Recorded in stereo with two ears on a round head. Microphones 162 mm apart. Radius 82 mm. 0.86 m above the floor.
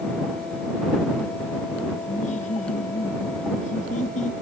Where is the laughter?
45° left (ahead or behind).